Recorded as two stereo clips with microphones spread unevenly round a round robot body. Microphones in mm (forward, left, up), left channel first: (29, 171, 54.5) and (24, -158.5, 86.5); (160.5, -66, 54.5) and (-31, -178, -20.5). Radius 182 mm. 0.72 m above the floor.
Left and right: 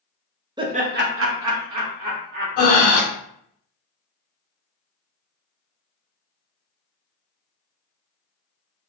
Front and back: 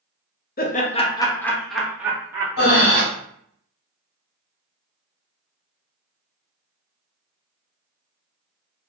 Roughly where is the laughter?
Ahead.